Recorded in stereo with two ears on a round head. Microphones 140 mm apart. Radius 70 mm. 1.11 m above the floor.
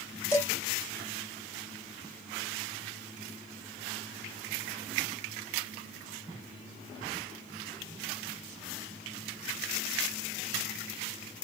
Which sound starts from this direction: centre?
Dishes clattering, at 0.3 s.